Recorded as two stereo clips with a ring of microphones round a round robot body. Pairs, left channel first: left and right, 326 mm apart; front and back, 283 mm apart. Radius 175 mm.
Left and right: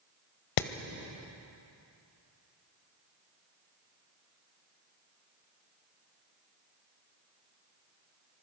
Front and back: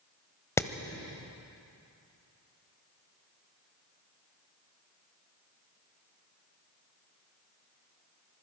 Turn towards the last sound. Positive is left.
turn(degrees=80)